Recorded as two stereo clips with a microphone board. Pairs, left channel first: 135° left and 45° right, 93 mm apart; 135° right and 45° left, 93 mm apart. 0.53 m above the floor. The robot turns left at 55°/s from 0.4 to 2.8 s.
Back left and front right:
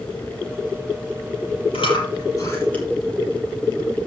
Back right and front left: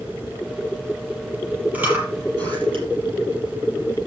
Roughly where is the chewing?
Behind left.